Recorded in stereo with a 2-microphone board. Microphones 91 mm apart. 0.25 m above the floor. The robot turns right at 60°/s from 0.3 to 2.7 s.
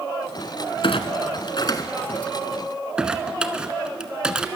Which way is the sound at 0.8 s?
70° left (ahead or behind).